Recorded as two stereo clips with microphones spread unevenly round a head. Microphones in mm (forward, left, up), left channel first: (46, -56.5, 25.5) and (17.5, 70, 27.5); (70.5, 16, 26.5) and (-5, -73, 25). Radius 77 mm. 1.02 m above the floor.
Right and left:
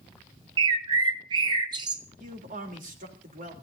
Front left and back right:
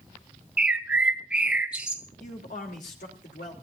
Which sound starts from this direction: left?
A man speaking, at 2.2 s.